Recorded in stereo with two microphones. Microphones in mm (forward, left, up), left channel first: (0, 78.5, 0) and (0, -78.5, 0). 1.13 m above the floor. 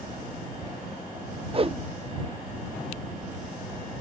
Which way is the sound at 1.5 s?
40° right (ahead or behind).